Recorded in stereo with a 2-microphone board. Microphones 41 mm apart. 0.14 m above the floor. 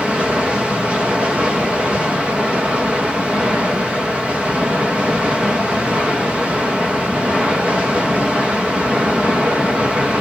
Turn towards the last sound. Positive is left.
turn(degrees=-25)  # may be behind; listen again after turning